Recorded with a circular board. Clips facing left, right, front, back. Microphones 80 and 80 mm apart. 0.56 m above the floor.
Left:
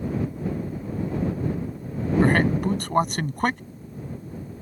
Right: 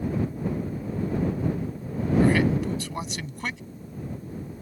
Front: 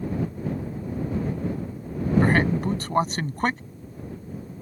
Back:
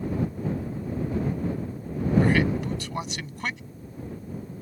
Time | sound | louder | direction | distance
2.2 | a man speaking | left 2 dB, front 3 dB | 50° left | ?